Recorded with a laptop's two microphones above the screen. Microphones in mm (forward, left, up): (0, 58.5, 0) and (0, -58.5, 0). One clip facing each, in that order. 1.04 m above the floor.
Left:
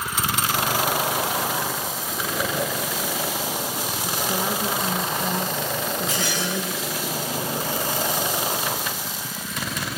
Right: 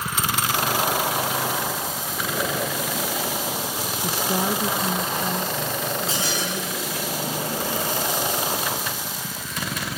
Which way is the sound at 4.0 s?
35° right (ahead or behind).